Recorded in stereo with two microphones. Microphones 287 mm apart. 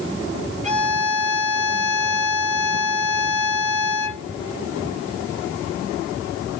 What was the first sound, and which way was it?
A violin, 25° right (ahead or behind).